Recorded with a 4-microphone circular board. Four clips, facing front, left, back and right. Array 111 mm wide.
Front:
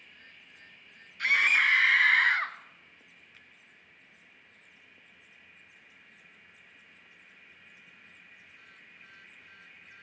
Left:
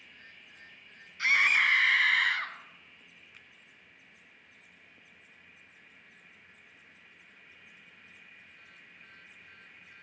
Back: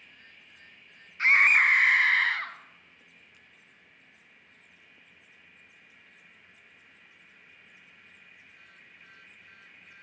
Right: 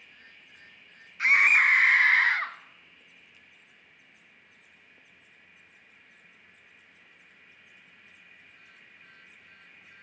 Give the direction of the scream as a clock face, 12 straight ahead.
5 o'clock.